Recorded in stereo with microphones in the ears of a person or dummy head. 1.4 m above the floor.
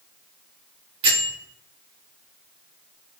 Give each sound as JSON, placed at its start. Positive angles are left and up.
{"t": 1.0, "sound": "a bell", "side_deg": -35, "distance_m": 1.9}